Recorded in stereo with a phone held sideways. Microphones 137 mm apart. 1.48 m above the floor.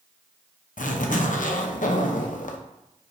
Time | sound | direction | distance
0.8 | a zipper | 70° left (ahead or behind) | 0.5 m